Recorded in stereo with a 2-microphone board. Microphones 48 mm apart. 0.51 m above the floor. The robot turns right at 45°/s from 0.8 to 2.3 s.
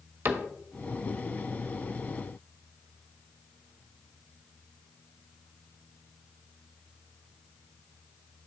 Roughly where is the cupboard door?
Right.